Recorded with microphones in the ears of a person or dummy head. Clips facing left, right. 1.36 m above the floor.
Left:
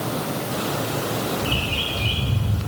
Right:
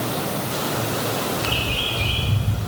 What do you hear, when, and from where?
1.4 s a bird: 10° left (ahead or behind), 1.7 m